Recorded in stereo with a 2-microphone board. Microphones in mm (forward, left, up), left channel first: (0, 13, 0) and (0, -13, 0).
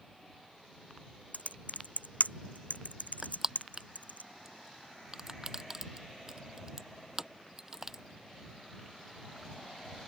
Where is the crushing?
15° right (ahead or behind).